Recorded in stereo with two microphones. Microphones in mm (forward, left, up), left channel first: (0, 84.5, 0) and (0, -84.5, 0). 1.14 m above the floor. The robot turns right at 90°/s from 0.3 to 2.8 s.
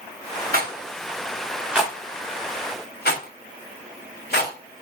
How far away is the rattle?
About 1.1 m.